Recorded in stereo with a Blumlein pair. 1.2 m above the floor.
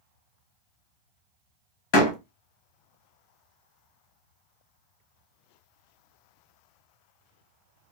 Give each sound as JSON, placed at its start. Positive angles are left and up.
{"t": 1.9, "sound": "a door slam", "azimuth_deg": 45, "distance_m": 1.0}